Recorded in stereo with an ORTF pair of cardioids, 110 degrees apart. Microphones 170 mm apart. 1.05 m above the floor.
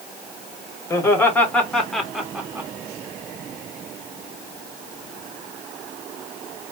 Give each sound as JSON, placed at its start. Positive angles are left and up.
{"t": 0.9, "sound": "laughter", "azimuth_deg": 15, "distance_m": 3.0}